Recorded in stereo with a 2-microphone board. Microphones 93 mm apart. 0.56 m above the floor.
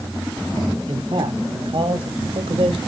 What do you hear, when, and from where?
0.9 s a man speaking: 60° right (ahead or behind), 3.5 m; by 2.8 s 70° right (ahead or behind), 2.0 m